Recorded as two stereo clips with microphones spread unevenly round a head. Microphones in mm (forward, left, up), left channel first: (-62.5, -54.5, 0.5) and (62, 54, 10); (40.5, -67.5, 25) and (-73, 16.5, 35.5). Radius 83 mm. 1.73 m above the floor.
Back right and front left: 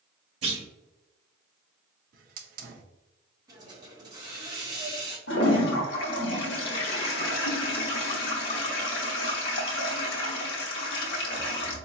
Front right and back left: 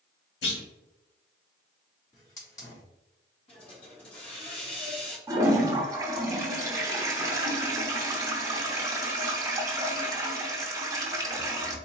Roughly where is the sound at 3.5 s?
Ahead.